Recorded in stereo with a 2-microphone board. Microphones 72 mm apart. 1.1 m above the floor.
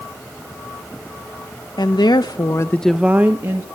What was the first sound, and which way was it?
A woman speaking, 85° left.